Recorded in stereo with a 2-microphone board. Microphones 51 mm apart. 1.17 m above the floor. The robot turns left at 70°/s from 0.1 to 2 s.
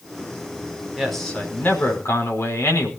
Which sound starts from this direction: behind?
A man speaking, at 1.0 s.